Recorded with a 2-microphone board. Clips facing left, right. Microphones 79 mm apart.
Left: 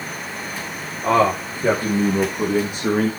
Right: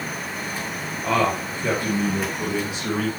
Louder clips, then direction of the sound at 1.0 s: Left 5 dB; 30° left (ahead or behind).